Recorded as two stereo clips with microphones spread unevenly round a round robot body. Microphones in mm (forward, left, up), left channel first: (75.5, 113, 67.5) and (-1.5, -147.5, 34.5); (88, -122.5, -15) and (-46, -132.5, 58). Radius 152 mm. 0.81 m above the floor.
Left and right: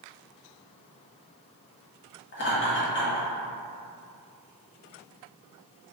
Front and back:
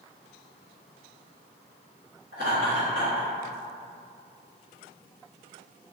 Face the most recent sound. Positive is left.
turn(degrees=125)